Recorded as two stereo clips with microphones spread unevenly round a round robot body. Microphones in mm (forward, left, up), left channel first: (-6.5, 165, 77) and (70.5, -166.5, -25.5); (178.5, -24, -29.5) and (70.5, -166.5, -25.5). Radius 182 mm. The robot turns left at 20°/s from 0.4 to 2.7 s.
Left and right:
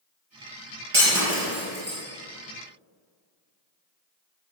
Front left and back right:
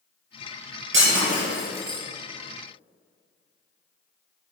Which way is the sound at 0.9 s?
125° right.